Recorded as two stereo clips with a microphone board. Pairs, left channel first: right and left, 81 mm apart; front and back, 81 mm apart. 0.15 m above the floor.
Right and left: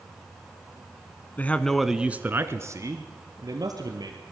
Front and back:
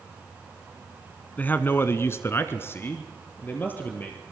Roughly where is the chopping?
No chopping in this recording.